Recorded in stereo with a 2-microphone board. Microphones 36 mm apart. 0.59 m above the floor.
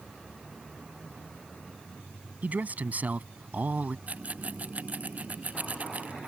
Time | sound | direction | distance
2.4 | a man speaking | 45° right (ahead or behind) | ?
4.1 | a rattle | 45° right (ahead or behind) | ?